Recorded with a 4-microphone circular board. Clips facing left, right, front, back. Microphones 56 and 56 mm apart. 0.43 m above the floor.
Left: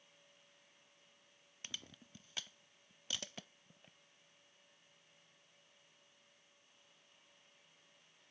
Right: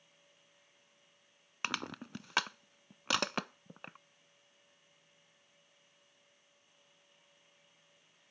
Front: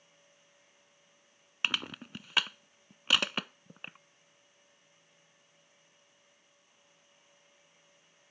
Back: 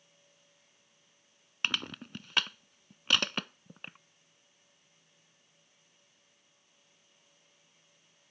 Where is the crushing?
85° right.